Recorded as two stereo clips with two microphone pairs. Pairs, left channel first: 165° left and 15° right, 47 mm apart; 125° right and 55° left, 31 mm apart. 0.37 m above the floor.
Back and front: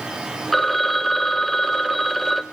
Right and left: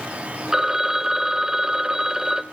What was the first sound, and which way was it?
A phone ringing, 85° left.